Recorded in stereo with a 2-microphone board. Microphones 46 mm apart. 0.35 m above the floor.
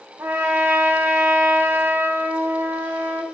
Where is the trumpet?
60° right (ahead or behind), 1.1 m.